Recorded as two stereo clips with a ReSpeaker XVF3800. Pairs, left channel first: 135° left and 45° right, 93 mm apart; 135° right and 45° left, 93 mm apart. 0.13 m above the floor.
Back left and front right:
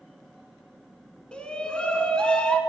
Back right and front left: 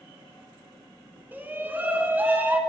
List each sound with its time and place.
1.3 s a shout: 75° left, 1.1 m